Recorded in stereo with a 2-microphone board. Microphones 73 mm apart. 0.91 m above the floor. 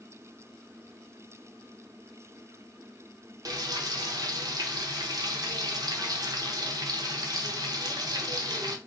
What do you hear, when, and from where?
3.5 s frying: 60° right (ahead or behind), 0.7 m